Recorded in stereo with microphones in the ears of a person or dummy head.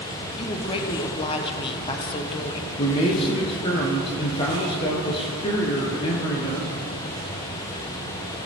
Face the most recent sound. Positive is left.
turn(degrees=30)  # may be behind; listen again after turning